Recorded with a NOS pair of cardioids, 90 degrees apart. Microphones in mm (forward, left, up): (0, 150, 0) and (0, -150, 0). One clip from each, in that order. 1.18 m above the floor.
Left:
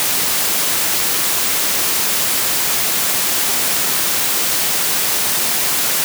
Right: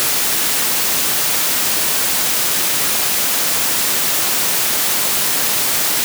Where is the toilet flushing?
No toilet flushing in this recording.